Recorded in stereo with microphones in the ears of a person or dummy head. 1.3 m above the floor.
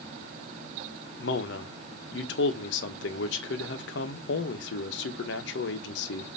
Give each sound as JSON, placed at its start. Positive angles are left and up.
{"t": 1.2, "sound": "a man speaking", "side_deg": 60, "distance_m": 0.7}